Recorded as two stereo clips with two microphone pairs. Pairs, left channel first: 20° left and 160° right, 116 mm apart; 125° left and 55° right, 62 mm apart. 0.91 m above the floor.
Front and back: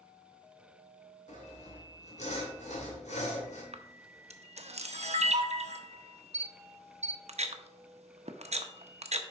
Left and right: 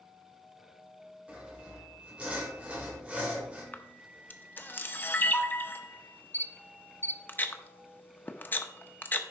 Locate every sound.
1.3 s sawing: 15° left, 2.5 m
3.7 s a camera shutter: straight behind, 0.7 m